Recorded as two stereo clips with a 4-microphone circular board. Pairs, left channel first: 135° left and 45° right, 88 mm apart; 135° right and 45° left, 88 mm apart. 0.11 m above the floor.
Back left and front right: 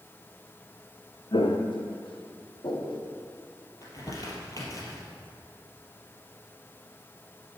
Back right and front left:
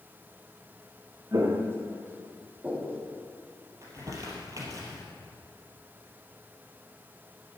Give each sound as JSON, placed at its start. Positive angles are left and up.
{"t": 1.3, "sound": "footsteps", "azimuth_deg": 100, "distance_m": 1.6}
{"t": 3.8, "sound": "crumpling", "azimuth_deg": 90, "distance_m": 3.0}